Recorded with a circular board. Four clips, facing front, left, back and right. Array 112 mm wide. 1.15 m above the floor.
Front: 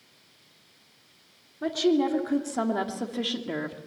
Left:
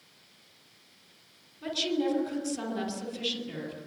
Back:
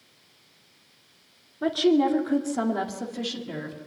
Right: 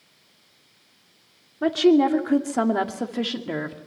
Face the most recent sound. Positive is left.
turn(degrees=-65)